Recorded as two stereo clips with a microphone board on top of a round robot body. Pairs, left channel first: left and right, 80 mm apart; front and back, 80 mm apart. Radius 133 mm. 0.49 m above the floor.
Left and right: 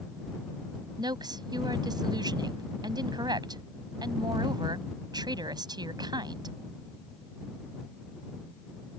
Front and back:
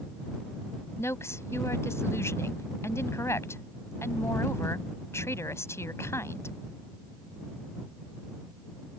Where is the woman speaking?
55° right.